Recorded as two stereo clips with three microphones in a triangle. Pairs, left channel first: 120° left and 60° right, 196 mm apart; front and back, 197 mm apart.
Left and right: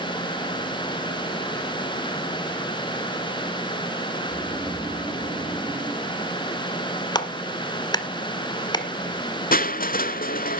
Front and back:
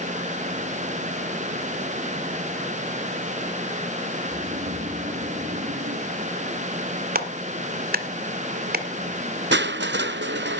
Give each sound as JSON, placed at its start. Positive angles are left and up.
{"t": 4.2, "sound": "snoring", "azimuth_deg": -130, "distance_m": 9.5}
{"t": 7.2, "sound": "a clap", "azimuth_deg": -175, "distance_m": 1.2}
{"t": 9.5, "sound": "crushing", "azimuth_deg": 160, "distance_m": 0.5}